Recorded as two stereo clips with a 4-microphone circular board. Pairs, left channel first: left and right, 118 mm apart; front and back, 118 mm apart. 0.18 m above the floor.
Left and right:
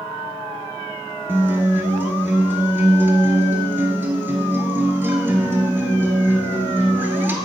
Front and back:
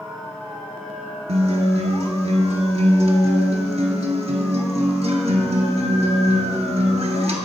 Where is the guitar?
160° right, 0.8 m.